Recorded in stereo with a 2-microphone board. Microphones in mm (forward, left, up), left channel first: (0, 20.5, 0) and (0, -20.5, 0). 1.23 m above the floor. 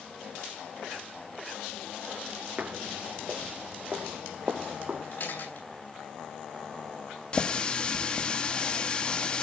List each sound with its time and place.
2.6 s footsteps: 35° right (ahead or behind), 1.5 m; by 5.0 s 30° right (ahead or behind), 2.5 m
5.1 s a camera shutter: 60° left (ahead or behind), 9 m
7.3 s a running tap: 25° left (ahead or behind), 1.6 m